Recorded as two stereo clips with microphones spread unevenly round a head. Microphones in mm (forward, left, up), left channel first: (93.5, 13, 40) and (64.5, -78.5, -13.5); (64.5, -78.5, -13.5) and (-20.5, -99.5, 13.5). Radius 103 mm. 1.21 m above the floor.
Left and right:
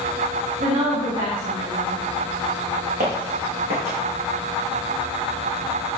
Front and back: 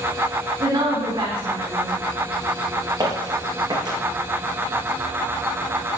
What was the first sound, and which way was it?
A woman speaking, 130° right.